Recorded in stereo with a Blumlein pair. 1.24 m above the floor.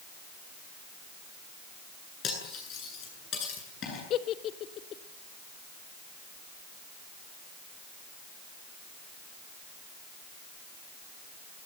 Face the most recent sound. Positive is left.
turn(degrees=30)